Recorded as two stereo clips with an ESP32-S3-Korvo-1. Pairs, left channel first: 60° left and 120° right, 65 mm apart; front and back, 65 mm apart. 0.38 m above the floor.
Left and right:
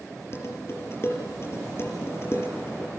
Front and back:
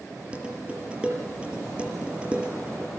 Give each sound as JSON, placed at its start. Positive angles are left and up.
{"t": 0.3, "sound": "dishes clattering", "azimuth_deg": 110, "distance_m": 6.5}